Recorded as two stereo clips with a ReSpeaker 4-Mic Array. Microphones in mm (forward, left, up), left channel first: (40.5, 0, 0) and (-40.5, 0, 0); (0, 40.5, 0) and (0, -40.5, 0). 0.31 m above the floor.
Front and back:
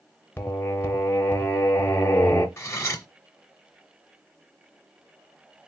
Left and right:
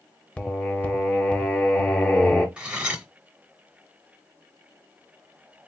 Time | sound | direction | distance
0.4 | singing | 30° left | 0.6 m
2.6 | cutlery clinking | 20° right | 0.7 m